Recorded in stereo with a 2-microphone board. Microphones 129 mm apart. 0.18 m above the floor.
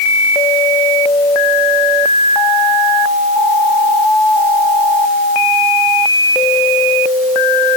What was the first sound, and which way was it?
Only background noise.